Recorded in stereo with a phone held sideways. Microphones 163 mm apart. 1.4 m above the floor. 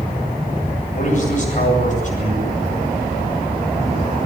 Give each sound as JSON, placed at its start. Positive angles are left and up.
{"t": 0.9, "sound": "a man speaking", "side_deg": 50, "distance_m": 9.0}